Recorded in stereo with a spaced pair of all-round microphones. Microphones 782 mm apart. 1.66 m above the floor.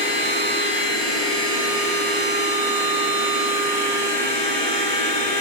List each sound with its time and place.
0.0 s a machine running: 25° right (ahead or behind), 3 m